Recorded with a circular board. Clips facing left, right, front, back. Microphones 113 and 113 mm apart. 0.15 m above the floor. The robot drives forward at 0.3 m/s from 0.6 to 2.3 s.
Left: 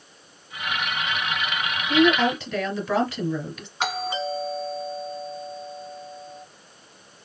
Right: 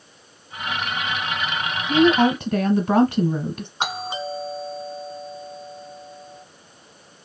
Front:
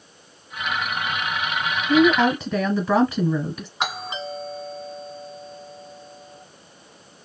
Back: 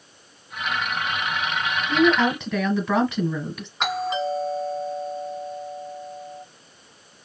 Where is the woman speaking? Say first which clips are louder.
Right 3 dB, front 3 dB; 85° right, 1.4 m; by 3.7 s 90° right, 1.4 m.